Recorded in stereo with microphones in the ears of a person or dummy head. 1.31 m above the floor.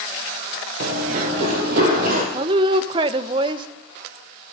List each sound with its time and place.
0.8 s running footsteps: 45° right (ahead or behind), 1.7 m; by 2.2 s 55° right (ahead or behind), 3 m
2.3 s a woman speaking: 30° right (ahead or behind), 0.7 m